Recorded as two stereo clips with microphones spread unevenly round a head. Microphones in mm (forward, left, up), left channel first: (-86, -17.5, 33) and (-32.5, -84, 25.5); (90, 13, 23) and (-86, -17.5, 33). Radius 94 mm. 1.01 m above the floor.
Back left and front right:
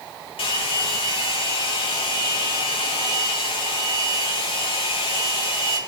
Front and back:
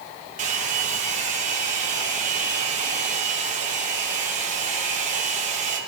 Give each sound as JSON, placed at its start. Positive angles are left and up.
{"t": 0.4, "sound": "a hair dryer", "azimuth_deg": 140, "distance_m": 2.5}